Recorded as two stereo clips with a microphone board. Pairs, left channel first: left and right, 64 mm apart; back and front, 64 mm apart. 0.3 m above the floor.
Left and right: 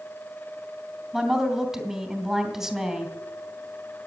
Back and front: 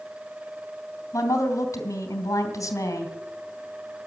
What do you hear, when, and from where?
1.1 s a woman speaking: 170° right, 3 m